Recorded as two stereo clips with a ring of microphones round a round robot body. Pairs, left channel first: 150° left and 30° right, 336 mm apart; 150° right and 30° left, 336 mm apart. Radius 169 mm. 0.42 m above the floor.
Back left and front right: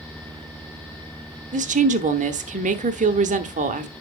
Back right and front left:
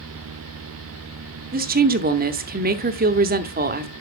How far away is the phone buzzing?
No phone buzzing in this recording.